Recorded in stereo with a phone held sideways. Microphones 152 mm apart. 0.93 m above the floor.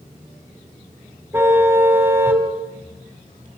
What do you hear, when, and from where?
1.3 s a car horn: 15° right (ahead or behind), 3.5 m